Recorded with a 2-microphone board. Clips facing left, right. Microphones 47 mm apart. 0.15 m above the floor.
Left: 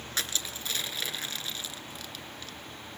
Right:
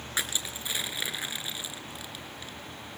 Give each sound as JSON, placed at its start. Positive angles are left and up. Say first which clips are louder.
{"t": 0.2, "sound": "crushing", "louder": "right 2 dB", "side_deg": -15, "distance_m": 2.5}